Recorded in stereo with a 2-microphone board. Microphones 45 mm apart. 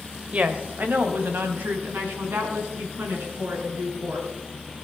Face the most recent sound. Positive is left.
turn(degrees=-65)  # may be behind; listen again after turning